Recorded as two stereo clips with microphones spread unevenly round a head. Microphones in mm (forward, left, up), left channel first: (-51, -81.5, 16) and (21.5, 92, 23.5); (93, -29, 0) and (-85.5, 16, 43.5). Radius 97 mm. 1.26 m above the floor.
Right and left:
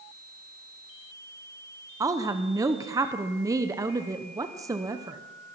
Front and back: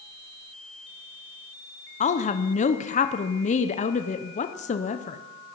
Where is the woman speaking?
5° right, 0.7 m.